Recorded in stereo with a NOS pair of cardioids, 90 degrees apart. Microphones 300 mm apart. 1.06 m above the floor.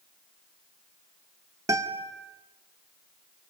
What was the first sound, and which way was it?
A guitar, 10° right.